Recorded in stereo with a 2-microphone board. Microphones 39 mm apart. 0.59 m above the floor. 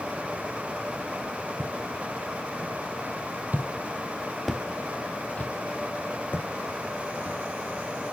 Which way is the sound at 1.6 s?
65° right (ahead or behind).